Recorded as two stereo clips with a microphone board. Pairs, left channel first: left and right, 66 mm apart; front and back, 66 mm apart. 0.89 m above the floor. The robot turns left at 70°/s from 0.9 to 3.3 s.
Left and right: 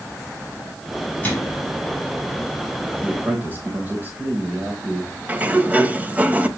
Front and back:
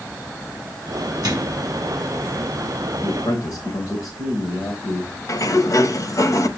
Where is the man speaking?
5° right, 4 m; by 5.1 s 25° right, 4 m.